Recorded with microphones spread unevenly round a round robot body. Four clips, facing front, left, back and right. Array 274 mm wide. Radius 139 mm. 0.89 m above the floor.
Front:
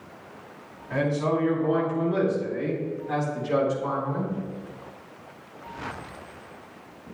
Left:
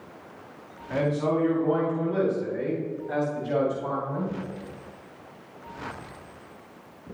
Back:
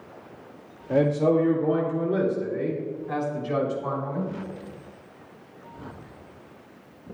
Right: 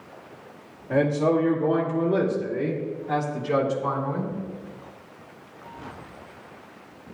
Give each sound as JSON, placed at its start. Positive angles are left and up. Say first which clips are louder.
{"t": 0.9, "sound": "a man speaking", "louder": "right 4 dB, back 4 dB", "azimuth_deg": -150, "distance_m": 2.0}